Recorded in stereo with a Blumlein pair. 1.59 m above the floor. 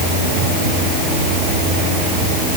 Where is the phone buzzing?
No phone buzzing in this recording.